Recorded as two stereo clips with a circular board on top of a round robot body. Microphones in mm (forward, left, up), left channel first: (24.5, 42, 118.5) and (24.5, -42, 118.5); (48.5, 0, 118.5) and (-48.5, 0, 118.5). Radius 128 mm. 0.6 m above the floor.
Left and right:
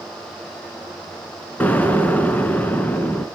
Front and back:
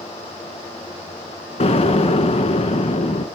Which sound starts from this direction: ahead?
An explosion, at 1.6 s.